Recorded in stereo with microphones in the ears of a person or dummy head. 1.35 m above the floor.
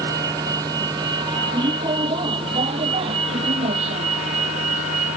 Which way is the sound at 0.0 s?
20° right (ahead or behind).